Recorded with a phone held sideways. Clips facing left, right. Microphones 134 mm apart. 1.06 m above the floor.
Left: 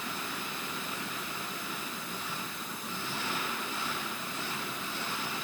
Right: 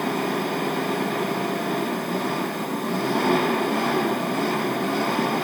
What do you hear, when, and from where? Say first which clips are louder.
0.0 s an engine running: right 16 dB; 65° right (ahead or behind)